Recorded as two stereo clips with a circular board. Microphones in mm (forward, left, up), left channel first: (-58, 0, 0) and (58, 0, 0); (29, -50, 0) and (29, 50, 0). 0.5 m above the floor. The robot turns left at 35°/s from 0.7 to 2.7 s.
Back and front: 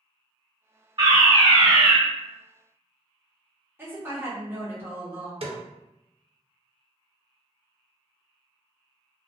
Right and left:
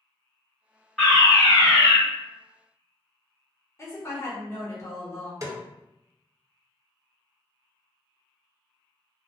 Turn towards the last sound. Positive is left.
turn(degrees=35)